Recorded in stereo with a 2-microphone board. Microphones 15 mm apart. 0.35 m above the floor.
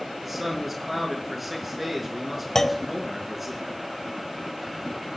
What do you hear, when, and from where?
0.2 s a man speaking: 10° right (ahead or behind), 4.5 m
2.5 s a clunk: 40° left (ahead or behind), 0.8 m